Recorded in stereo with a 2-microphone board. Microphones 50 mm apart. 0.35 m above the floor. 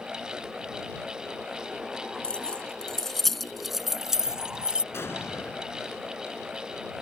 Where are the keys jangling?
20° left (ahead or behind); by 4.8 s 20° right (ahead or behind).